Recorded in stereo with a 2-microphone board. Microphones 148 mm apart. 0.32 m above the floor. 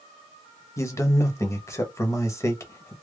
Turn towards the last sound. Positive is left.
turn(degrees=20)  # may be behind; listen again after turning